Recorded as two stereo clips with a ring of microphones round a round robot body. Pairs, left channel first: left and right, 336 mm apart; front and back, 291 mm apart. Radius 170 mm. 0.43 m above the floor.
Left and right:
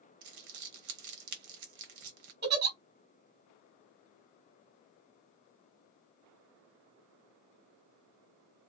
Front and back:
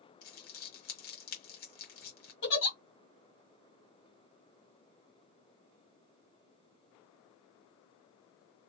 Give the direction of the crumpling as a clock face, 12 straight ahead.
2 o'clock.